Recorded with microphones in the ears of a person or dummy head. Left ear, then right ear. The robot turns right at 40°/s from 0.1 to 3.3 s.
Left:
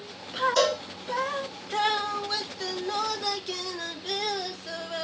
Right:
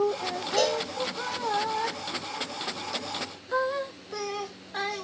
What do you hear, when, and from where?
0.6 s a cowbell: 60° left (ahead or behind), 5 m; by 0.8 s 50° left (ahead or behind), 5 m